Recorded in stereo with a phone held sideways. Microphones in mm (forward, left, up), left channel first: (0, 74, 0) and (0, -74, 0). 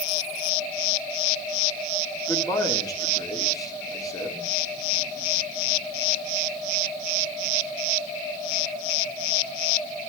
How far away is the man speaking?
About 3 m.